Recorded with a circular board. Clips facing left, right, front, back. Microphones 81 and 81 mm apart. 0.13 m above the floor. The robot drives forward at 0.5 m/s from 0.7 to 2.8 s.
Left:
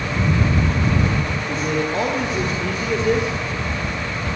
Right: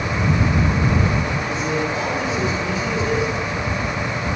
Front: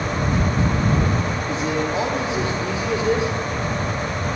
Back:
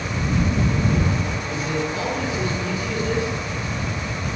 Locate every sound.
1.5 s a man speaking: 60° left, 4.5 m; by 3.3 s 70° left, 4.5 m